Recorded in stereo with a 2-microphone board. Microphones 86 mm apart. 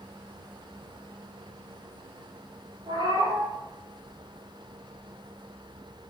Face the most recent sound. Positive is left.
turn(degrees=-60)  # may be behind; listen again after turning